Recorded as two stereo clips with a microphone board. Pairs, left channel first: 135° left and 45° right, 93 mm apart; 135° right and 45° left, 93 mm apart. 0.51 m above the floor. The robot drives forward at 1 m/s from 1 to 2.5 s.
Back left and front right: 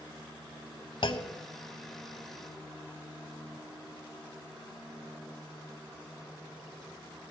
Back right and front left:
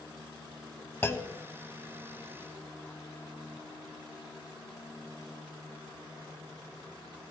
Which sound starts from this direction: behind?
A clunk, at 1.0 s.